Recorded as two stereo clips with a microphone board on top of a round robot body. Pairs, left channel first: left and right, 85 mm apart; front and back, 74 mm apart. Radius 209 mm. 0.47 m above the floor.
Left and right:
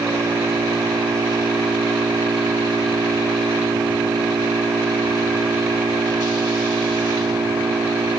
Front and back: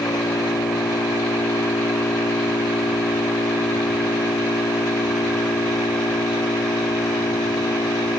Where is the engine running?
35° right.